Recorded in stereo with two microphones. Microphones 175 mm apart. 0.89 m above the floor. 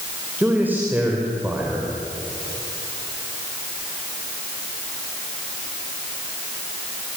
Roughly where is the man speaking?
Centre.